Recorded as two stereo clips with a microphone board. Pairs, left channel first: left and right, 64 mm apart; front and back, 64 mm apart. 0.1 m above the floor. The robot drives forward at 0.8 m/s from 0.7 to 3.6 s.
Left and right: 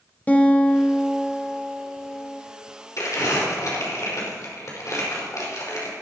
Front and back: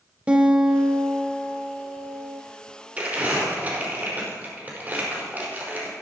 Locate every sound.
0.3 s a guitar: 125° left, 1.4 m; by 2.4 s 160° left, 2.5 m
3.0 s crumpling: 115° left, 4.5 m; by 5.9 s 120° left, 4.5 m